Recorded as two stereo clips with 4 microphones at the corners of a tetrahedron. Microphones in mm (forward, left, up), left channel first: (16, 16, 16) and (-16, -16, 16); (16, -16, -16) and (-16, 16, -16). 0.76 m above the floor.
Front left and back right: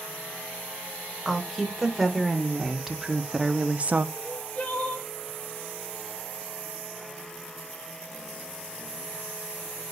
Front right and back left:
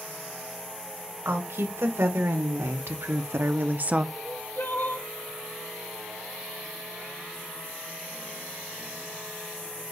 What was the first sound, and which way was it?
A woman speaking, 130° left.